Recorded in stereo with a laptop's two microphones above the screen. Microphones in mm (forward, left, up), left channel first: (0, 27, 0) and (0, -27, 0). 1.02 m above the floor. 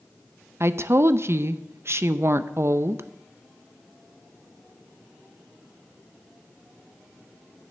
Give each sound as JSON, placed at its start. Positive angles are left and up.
{"t": 0.6, "sound": "a woman speaking", "side_deg": -50, "distance_m": 0.5}